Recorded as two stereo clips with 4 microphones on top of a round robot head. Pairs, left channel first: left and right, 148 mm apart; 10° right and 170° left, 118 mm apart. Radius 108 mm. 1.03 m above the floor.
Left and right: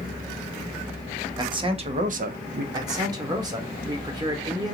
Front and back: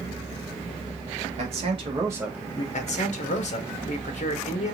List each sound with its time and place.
1.4 s a man speaking: 150° right, 1.2 m; by 2.6 s 70° right, 0.7 m
2.7 s a man speaking: 25° right, 0.9 m